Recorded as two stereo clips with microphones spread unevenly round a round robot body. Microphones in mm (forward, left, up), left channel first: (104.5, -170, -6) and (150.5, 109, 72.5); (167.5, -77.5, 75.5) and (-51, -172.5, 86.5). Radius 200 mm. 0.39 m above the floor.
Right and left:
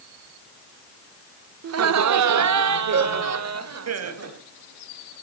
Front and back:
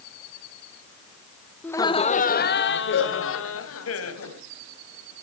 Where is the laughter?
100° left, 0.9 m; by 4.4 s 40° left, 3 m.